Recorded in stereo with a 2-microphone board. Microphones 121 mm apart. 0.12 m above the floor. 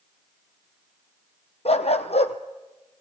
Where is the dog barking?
55° left (ahead or behind), 1.1 m.